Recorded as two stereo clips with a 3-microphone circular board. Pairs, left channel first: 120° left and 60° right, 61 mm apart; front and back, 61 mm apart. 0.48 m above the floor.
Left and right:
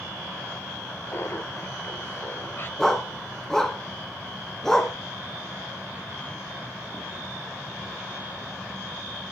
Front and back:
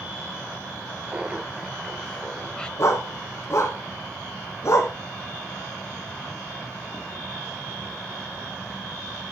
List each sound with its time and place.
1.1 s laughter: 125° left, 0.9 m; by 2.7 s 75° left, 1.9 m
2.8 s a dog barking: 40° left, 1.8 m